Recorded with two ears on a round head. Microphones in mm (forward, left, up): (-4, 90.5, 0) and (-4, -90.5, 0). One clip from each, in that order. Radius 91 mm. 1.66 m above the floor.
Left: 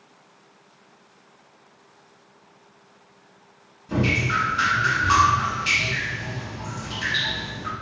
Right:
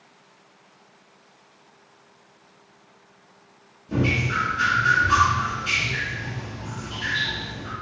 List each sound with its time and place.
3.9 s dripping: 40° left (ahead or behind), 1.7 m